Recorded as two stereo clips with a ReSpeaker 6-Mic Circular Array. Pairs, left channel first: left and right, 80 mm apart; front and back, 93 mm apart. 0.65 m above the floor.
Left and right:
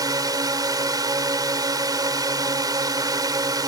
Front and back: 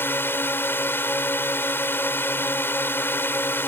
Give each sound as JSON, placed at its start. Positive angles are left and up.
{"t": 0.0, "sound": "a drone", "azimuth_deg": -65}